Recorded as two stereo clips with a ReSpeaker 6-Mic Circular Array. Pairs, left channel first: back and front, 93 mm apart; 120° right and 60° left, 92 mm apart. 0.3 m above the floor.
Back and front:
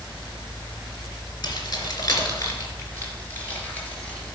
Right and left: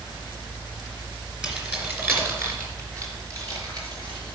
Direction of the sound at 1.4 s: 140° left.